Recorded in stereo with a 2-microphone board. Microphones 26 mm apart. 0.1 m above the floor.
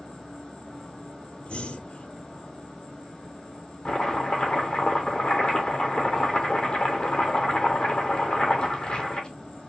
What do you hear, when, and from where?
0.0 s an insect: 35° left (ahead or behind), 2 m
1.5 s breathing: 50° left (ahead or behind), 0.7 m
3.9 s chopping: 35° left (ahead or behind), 0.9 m